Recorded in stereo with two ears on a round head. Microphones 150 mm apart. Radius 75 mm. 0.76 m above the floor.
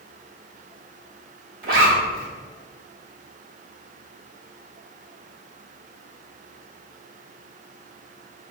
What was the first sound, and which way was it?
A zipper, 60° right (ahead or behind).